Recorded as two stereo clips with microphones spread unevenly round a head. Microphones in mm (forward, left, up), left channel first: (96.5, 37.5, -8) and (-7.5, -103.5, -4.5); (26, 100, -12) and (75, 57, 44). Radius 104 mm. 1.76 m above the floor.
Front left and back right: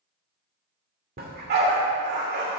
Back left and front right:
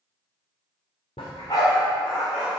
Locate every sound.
1.2 s a dog barking: 145° right, 2 m; by 2.6 s 100° right, 3.5 m